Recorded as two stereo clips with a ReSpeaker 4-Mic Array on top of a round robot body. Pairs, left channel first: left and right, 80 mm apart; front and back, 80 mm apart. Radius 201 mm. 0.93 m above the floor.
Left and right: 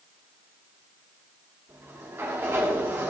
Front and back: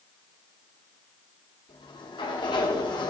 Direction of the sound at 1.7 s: 25° right.